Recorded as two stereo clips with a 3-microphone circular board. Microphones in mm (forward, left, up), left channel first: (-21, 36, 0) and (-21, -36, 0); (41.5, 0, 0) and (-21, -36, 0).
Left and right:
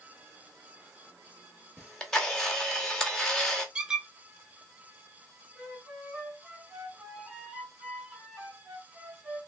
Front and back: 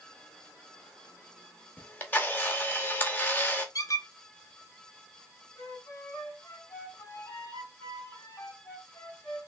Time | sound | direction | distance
1.8 | a camera shutter | 25° left | 0.8 m
3.8 | a squeak | 10° right | 0.6 m
5.5 | a flute | 20° right | 2.5 m